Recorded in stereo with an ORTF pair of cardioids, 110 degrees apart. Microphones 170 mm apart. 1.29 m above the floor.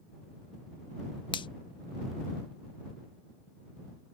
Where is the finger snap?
30° left.